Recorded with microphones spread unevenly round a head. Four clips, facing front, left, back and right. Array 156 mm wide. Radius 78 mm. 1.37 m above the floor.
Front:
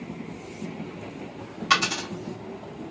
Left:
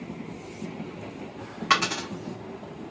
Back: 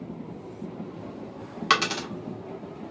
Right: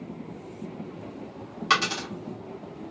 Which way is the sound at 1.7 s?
170° left.